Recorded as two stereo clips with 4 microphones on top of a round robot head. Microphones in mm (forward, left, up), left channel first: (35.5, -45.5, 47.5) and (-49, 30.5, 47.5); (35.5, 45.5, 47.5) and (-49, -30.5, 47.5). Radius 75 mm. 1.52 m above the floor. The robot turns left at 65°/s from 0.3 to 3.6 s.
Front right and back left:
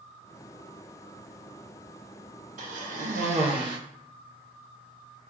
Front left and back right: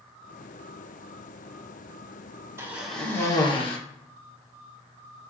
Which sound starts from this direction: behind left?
A cough, at 2.6 s.